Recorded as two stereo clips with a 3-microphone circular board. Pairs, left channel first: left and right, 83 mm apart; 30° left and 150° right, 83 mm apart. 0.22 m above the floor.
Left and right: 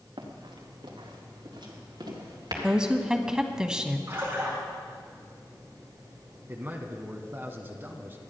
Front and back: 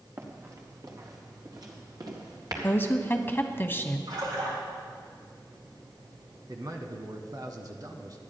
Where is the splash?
145° right, 6 m.